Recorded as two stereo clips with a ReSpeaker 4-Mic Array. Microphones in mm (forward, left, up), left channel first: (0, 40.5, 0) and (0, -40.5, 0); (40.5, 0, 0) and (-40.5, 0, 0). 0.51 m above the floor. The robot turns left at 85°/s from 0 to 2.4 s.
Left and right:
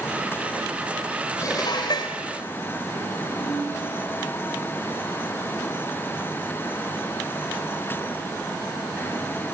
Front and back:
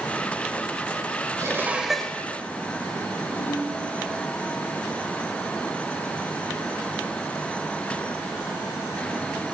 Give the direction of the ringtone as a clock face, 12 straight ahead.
7 o'clock.